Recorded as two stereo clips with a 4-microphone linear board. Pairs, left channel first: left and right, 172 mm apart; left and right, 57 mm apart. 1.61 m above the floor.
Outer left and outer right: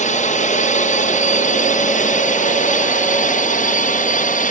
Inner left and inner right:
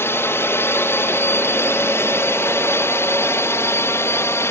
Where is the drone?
45° left (ahead or behind); by 4.5 s 50° left (ahead or behind).